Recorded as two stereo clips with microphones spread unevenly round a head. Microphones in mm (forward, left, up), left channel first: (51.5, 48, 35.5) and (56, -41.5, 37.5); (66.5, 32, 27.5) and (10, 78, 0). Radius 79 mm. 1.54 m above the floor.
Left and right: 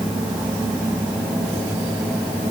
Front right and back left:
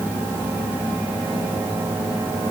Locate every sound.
Only background noise.